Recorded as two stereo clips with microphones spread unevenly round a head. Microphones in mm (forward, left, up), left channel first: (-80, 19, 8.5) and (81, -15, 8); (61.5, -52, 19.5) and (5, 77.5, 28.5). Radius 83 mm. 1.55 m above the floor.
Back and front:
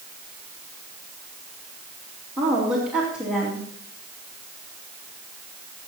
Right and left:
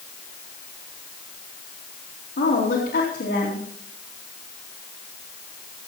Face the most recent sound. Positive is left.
turn(degrees=-95)